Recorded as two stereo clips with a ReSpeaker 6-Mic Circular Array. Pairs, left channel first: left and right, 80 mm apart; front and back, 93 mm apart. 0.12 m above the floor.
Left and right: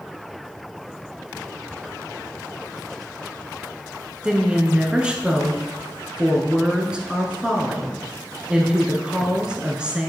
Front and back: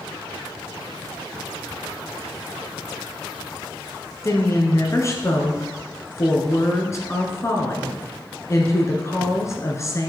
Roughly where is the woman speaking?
Ahead.